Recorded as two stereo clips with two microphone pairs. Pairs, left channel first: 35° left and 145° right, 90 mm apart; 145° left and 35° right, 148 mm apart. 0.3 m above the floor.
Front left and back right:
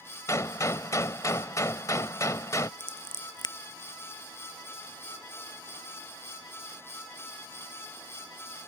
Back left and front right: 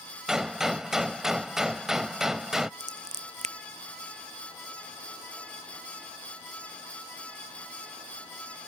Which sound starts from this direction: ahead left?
A gunshot, at 0.3 s.